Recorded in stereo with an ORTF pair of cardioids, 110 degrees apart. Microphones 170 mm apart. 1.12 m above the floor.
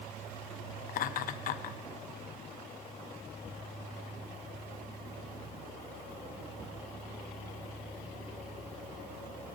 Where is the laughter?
55° left, 0.7 m.